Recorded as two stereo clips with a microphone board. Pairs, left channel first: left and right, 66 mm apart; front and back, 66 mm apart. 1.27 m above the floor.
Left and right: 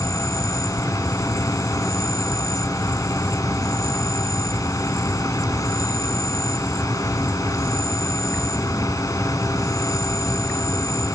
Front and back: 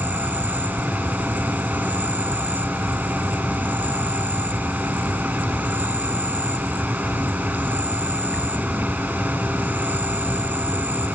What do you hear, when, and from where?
0.0 s an insect: 115° left